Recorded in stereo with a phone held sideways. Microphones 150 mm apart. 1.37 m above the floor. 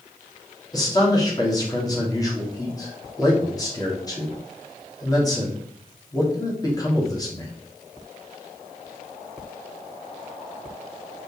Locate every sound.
0.7 s a man speaking: 25° left (ahead or behind), 2.5 m